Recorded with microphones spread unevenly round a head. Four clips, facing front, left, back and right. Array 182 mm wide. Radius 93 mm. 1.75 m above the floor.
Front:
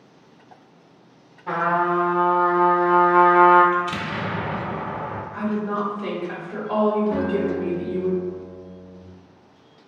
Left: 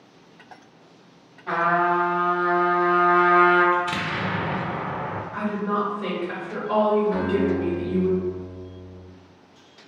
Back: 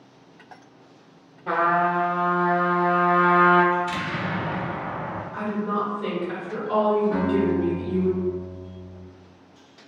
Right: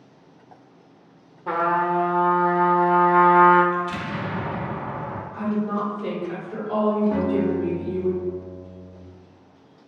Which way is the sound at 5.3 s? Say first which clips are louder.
Even, front 1 dB; 125° left.